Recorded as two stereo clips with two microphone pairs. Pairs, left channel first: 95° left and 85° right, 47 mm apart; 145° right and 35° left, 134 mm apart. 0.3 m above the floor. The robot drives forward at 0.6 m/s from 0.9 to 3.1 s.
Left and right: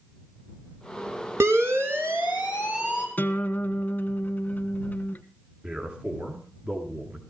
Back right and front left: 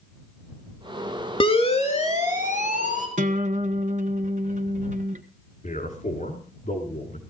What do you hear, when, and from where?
1.4 s a siren: 100° right, 3 m; by 3.1 s 145° right, 4.5 m
3.2 s a guitar: 50° left, 1.2 m
5.6 s a man speaking: 140° right, 4 m